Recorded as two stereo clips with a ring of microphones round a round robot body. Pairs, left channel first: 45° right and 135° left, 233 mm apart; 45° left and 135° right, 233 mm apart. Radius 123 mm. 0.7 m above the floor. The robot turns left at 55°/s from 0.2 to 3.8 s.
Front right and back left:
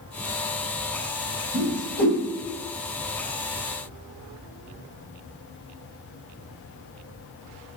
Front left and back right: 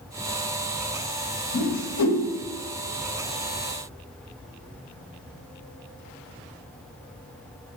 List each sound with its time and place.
1.5 s a whoosh: 65° left, 2.5 m; by 2.2 s 25° left, 2.5 m